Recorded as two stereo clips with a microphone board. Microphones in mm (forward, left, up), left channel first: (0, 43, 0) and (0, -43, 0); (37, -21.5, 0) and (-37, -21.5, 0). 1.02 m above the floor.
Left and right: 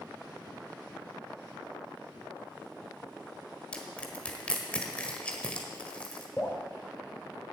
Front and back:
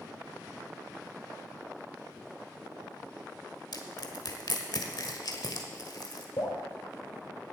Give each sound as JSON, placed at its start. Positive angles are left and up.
{"t": 3.7, "sound": "crushing", "azimuth_deg": 15, "distance_m": 1.4}
{"t": 6.4, "sound": "dripping", "azimuth_deg": 20, "distance_m": 3.0}